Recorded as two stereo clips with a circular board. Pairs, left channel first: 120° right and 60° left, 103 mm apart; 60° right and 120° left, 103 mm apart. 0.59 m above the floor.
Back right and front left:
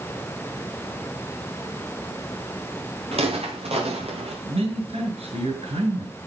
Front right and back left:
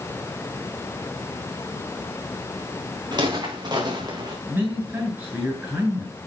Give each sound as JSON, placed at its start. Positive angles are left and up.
{"t": 3.1, "sound": "footsteps", "azimuth_deg": 75, "distance_m": 9.0}
{"t": 4.5, "sound": "a man speaking", "azimuth_deg": 50, "distance_m": 8.5}